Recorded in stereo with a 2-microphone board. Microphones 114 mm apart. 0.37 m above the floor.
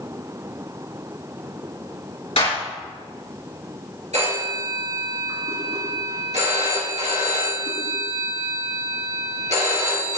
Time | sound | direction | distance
2.4 | a clap | 65° left (ahead or behind) | 4.5 m
4.1 | a phone ringing | 75° right (ahead or behind) | 3.5 m